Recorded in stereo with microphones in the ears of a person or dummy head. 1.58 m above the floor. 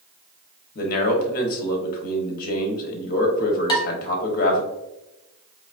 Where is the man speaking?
50° left (ahead or behind), 1.2 m.